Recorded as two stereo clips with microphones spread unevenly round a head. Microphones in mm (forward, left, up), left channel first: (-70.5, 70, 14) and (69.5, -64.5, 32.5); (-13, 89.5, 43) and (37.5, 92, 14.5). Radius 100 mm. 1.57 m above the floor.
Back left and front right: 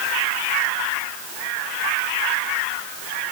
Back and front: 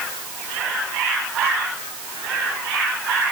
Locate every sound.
Only background noise.